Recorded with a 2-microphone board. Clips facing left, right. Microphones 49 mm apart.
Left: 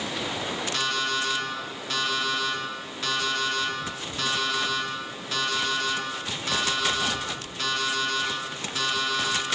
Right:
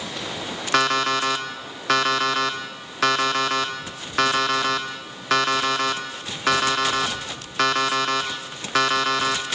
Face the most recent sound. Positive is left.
turn(degrees=-80)